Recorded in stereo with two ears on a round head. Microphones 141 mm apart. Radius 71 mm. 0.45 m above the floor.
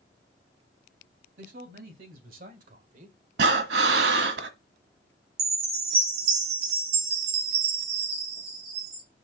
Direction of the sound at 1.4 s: 60° right (ahead or behind).